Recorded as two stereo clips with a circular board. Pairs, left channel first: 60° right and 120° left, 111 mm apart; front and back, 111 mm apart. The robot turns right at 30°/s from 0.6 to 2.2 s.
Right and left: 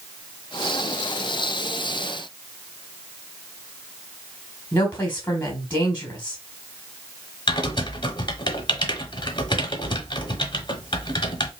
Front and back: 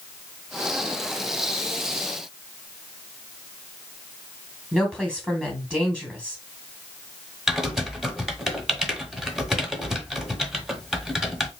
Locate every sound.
4.7 s a woman speaking: 110° right, 1.4 m
7.5 s typing on a keyboard: 95° right, 0.7 m